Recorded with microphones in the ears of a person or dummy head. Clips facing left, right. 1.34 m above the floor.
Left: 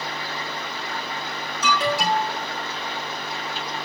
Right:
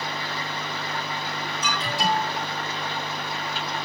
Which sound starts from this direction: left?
An alarm, at 1.6 s.